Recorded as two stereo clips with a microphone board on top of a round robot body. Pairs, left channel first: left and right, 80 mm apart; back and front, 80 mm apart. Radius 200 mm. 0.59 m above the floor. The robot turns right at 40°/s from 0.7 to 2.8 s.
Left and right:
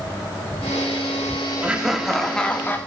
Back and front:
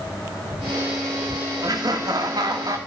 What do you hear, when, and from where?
1.6 s laughter: 20° right, 1.6 m; by 2.8 s 25° left, 1.6 m